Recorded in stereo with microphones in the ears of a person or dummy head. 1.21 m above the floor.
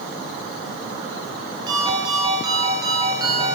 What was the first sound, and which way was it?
A ringtone, 25° right (ahead or behind).